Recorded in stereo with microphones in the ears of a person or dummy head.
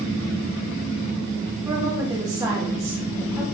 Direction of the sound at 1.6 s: 20° right (ahead or behind).